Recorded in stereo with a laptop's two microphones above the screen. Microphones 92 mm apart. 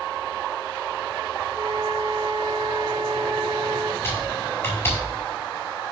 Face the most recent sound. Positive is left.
turn(degrees=25)  # may be behind; listen again after turning